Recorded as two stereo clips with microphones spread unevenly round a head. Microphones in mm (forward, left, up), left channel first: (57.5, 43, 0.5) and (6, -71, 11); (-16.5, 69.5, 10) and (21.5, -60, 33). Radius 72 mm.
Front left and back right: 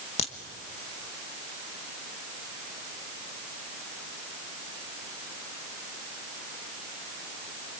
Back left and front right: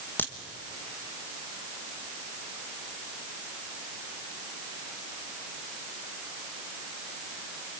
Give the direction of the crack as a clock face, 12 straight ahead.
11 o'clock.